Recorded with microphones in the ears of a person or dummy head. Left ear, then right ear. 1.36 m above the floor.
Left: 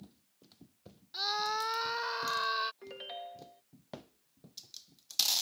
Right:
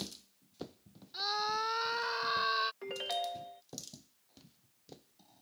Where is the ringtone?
20° right (ahead or behind).